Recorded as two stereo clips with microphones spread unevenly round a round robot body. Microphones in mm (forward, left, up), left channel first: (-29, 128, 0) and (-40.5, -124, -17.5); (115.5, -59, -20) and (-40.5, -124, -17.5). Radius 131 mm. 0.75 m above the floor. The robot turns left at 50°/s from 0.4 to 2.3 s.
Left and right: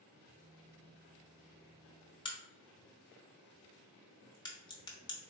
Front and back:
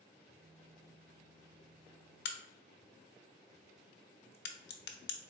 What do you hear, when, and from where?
2.2 s a crack: 15° left, 0.6 m